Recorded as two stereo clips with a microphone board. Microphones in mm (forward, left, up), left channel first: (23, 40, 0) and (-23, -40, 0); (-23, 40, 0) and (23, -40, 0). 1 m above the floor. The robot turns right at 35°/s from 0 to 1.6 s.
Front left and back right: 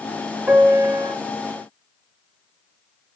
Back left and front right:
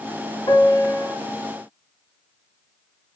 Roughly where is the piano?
Behind.